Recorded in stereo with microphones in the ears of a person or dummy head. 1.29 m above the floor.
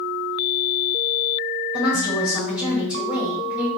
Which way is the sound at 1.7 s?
Centre (ahead or behind).